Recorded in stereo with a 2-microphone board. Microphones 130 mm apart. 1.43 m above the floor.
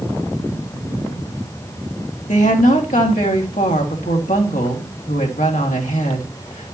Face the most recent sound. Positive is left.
turn(degrees=80)